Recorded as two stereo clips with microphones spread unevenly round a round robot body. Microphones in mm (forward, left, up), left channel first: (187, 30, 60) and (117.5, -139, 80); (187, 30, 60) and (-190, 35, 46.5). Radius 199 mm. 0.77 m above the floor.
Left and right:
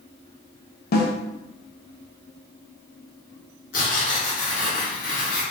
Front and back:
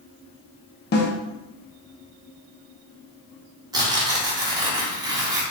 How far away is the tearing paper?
About 1.3 m.